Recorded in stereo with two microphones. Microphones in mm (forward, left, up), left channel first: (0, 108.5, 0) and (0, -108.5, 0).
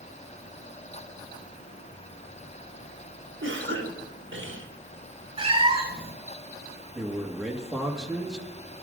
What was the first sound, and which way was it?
A cough, 65° right (ahead or behind).